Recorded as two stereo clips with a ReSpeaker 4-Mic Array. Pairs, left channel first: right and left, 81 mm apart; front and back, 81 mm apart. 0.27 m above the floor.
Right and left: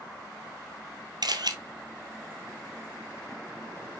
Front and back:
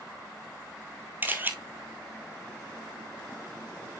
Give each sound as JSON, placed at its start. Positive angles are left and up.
{"t": 1.2, "sound": "a camera shutter", "azimuth_deg": 115, "distance_m": 1.1}